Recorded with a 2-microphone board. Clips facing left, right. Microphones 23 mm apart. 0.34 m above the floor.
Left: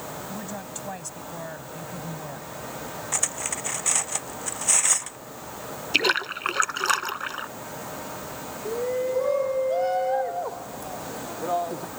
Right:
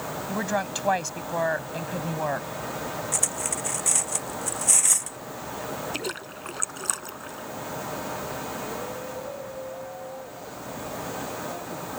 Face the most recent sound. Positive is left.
turn(degrees=85)